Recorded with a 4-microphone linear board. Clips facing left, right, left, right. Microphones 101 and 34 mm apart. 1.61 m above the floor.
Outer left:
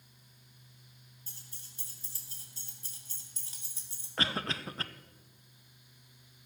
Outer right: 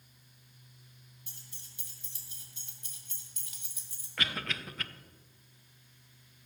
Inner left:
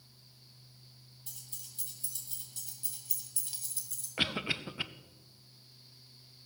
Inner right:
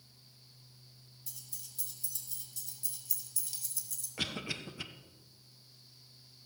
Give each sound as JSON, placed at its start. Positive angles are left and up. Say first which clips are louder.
{"t": 1.3, "sound": "keys jangling", "louder": "even, inner left 1 dB", "side_deg": 40, "distance_m": 3.5}
{"t": 4.2, "sound": "a cough", "louder": "outer left 3 dB, inner left 5 dB", "side_deg": 35, "distance_m": 0.7}